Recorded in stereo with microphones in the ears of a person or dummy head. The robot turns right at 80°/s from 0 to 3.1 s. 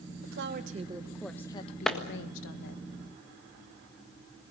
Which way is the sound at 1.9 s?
Centre (ahead or behind).